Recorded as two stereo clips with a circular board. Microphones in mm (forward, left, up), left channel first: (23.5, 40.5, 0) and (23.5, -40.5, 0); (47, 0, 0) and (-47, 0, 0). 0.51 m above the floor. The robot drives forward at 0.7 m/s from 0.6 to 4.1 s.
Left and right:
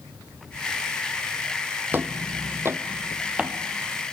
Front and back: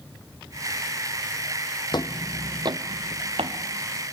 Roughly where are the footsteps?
Ahead right.